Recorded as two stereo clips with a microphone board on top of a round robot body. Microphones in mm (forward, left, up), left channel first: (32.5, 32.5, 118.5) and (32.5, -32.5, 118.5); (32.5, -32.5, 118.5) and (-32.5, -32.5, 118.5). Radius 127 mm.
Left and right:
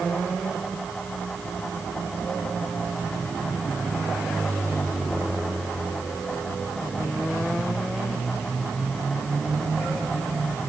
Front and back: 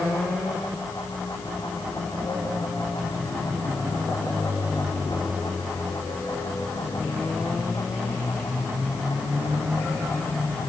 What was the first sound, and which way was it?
Only background noise.